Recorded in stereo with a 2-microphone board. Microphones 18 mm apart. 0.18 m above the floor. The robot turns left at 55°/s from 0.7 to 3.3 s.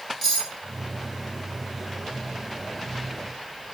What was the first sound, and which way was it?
Cutlery clinking, 5° right (ahead or behind).